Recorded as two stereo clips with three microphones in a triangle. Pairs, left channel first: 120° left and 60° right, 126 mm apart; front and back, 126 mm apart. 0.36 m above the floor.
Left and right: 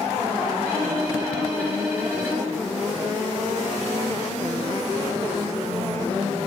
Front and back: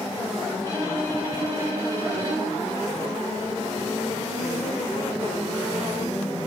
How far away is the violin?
About 4 m.